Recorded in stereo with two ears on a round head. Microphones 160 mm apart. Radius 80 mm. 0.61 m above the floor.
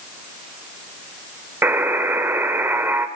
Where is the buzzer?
15° right (ahead or behind), 1.3 m.